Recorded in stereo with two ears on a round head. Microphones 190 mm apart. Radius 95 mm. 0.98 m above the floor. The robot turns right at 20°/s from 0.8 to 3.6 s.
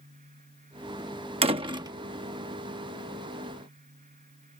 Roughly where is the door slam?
Right.